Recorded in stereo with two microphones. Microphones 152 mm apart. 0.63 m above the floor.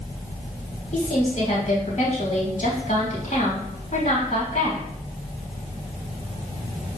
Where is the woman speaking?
50° left (ahead or behind), 3.5 m.